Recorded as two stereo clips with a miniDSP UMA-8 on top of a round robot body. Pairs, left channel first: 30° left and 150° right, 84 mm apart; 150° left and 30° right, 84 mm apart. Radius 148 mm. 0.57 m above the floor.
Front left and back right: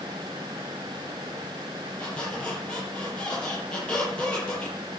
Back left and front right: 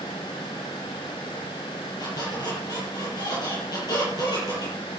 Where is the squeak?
110° left, 8 m.